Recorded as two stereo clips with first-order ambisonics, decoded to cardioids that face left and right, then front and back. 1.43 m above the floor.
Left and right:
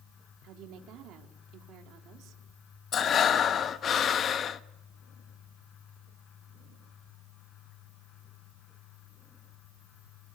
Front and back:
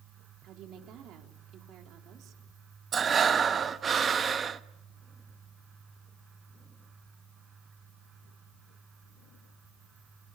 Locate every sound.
0.4 s a woman speaking: 135° right, 3.5 m
2.9 s breathing: 125° left, 0.8 m